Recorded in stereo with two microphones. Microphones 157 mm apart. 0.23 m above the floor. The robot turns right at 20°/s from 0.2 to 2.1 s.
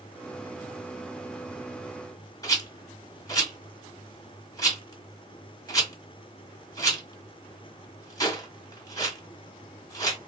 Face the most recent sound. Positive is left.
turn(degrees=25)  # may be behind; listen again after turning